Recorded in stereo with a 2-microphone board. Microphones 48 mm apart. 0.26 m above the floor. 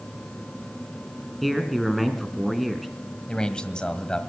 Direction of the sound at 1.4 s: Centre (ahead or behind).